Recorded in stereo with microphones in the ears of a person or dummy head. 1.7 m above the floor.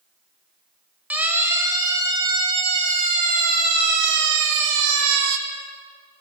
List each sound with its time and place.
1.1 s a siren: 5° right (ahead or behind), 4 m; by 5.4 s 80° right, 3 m